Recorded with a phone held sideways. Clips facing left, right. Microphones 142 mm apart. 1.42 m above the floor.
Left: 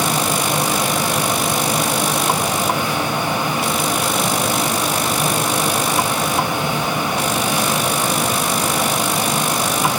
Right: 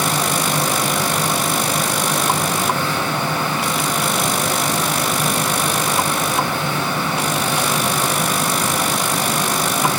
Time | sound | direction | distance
0.0 | a fan | 15° left (ahead or behind) | 7 m